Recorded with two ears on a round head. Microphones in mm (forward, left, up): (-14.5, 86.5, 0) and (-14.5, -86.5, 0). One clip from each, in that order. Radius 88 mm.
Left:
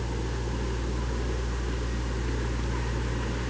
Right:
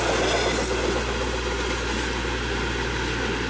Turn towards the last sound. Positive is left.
No sound to turn to.